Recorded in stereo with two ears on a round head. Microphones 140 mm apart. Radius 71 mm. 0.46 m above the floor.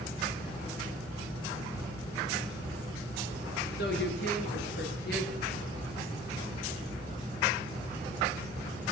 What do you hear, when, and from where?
3.8 s a woman speaking: 70° left (ahead or behind), 6 m; by 6.1 s 60° left (ahead or behind), 8 m